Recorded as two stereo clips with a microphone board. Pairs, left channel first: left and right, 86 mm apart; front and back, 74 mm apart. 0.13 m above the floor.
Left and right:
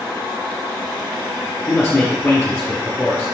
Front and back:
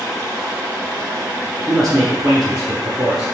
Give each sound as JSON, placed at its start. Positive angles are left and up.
{"t": 1.7, "sound": "a man speaking", "azimuth_deg": 105, "distance_m": 1.4}